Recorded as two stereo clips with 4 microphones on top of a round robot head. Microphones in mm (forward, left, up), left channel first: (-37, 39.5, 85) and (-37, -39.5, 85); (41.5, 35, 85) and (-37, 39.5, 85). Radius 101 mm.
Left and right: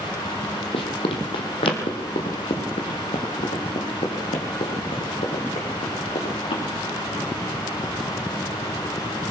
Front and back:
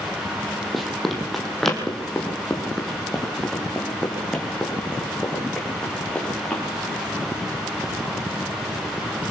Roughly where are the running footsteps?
Left.